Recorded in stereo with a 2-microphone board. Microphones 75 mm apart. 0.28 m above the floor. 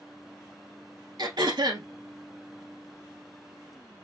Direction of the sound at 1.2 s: 70° right (ahead or behind).